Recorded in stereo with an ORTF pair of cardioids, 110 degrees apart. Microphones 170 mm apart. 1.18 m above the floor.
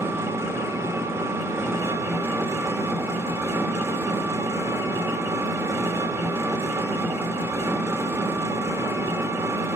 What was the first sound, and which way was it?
An engine running, 15° right.